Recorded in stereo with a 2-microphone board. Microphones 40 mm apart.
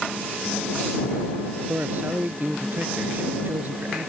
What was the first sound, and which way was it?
A man speaking, 50° right (ahead or behind).